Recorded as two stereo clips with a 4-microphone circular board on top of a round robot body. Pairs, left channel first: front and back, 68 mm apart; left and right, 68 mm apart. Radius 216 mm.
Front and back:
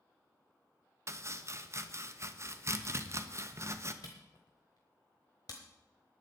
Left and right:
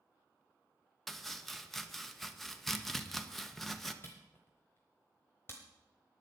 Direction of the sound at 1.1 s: 175° left.